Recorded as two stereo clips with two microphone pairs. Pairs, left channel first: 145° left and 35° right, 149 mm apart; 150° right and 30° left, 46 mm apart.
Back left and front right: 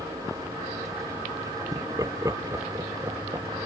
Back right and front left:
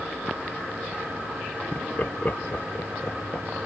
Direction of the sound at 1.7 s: 100° right.